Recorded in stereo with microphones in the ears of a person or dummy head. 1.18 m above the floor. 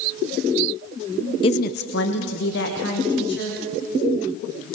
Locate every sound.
1.4 s a woman speaking: 20° left (ahead or behind), 0.6 m; by 3.6 s 65° left (ahead or behind), 3.5 m